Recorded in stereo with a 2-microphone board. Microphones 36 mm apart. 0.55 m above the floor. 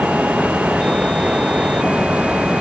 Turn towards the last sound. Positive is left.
No sound to turn to.